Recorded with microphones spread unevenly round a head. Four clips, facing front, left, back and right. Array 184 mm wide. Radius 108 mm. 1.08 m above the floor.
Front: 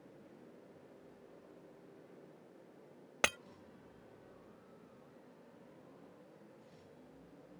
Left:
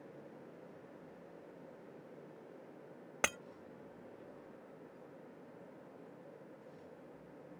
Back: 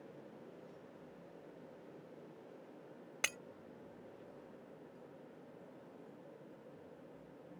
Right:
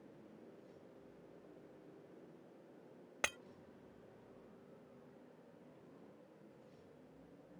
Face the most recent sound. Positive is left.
turn(degrees=45)